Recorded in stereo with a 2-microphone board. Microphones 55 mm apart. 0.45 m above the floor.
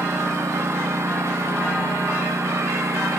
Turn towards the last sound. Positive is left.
turn(degrees=-65)  # may be behind; listen again after turning